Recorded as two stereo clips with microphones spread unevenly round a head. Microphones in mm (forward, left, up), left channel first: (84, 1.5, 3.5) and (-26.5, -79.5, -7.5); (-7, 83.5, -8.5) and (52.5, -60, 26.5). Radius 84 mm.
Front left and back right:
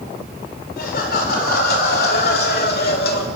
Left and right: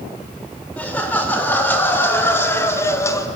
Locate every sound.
0.8 s laughter: 30° left, 5 m; by 3.3 s 40° left, 2.5 m